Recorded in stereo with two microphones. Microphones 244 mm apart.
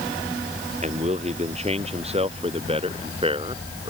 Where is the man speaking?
25° right (ahead or behind); by 3.9 s 20° right (ahead or behind).